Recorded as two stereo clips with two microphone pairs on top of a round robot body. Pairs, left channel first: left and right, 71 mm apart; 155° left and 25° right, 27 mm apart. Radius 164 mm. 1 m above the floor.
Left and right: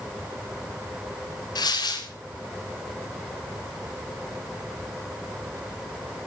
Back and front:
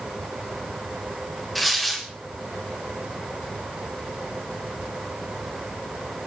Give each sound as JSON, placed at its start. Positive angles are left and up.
{"t": 1.6, "sound": "tearing paper", "azimuth_deg": 70, "distance_m": 4.0}